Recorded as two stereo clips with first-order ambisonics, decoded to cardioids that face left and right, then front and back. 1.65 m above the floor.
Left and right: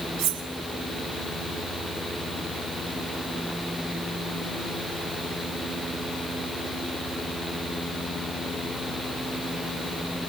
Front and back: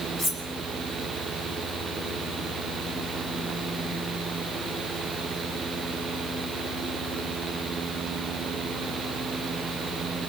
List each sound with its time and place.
0.2 s cutlery clinking: 105° right, 6 m